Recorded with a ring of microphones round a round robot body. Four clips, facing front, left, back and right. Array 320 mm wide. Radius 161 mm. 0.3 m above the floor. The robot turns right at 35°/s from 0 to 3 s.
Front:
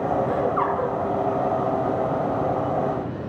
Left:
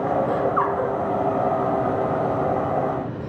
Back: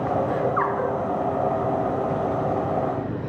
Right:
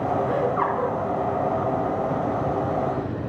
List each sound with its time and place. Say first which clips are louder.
0.3 s laughter: left 1 dB, front 1 dB; 90° left, 3.5 m; by 0.9 s 115° left, 3.5 m